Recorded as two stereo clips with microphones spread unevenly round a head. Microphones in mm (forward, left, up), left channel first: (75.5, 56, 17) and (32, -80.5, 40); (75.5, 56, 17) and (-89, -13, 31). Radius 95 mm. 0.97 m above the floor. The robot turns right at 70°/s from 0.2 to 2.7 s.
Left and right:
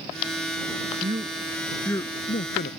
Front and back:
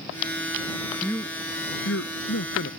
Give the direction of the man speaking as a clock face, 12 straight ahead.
2 o'clock.